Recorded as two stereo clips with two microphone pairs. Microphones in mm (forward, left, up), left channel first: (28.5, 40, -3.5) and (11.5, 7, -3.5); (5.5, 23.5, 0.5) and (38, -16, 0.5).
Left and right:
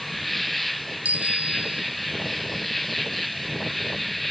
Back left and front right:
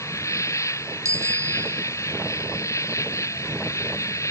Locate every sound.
0.0 s an insect: 150° left
1.1 s a bicycle bell: 70° right